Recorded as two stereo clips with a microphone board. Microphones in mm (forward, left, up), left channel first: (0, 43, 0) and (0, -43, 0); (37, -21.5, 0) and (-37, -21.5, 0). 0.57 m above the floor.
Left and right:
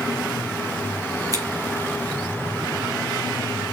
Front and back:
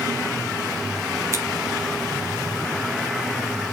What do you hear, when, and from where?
1.3 s scissors: 135° right, 3 m